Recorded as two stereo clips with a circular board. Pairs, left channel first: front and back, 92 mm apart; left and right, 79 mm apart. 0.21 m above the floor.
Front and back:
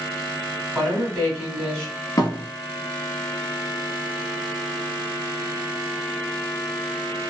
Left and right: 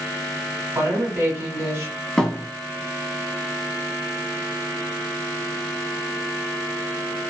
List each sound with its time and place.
0.8 s a woman speaking: 85° right, 1.6 m
2.2 s a thud: 10° left, 0.8 m